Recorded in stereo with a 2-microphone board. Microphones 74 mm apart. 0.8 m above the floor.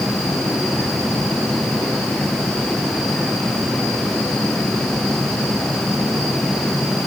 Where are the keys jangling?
No keys jangling in this recording.